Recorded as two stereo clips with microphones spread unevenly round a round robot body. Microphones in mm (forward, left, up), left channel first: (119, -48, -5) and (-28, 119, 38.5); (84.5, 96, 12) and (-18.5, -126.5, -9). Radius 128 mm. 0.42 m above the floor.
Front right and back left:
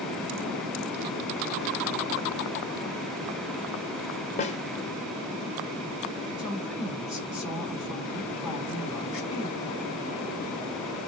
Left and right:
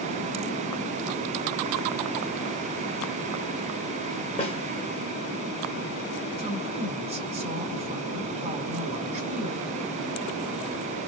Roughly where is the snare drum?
Ahead.